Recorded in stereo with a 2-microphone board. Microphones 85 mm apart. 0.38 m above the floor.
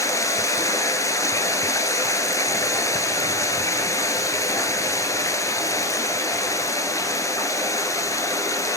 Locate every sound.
0.0 s running water: 40° left (ahead or behind), 1.2 m